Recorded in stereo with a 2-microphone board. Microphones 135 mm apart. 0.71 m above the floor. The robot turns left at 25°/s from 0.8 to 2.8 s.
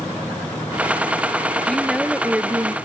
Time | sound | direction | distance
1.7 | a woman speaking | 5° left (ahead or behind) | ?